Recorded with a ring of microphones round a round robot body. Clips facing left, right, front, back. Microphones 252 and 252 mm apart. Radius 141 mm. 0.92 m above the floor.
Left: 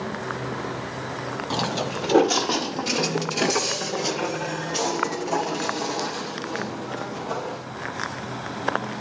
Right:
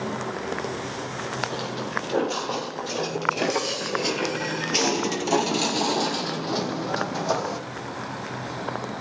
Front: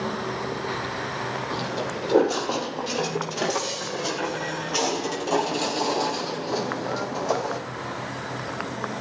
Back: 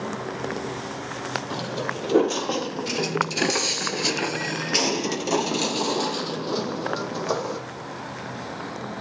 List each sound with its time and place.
1.5 s footsteps: 105° left, 1.7 m; by 7.6 s 110° right, 3 m